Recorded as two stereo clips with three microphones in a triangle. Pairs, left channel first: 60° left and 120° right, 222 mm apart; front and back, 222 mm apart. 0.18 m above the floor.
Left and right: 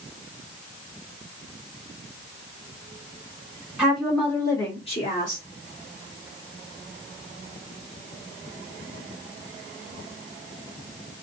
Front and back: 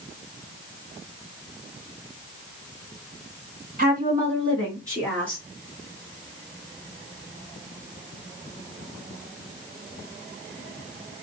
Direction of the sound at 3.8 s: 160° left.